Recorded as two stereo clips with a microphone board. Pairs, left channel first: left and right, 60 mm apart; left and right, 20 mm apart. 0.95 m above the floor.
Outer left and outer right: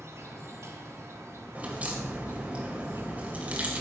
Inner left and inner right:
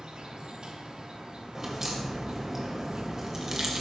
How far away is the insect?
About 1.3 m.